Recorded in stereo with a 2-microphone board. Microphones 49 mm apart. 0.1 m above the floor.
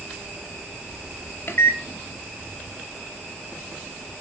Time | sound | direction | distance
1.5 | a microwave | 45° left (ahead or behind) | 1.6 m